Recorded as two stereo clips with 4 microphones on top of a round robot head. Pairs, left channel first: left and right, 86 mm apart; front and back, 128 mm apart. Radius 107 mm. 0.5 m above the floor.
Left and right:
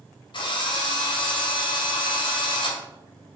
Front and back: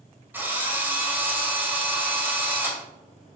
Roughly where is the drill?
Left.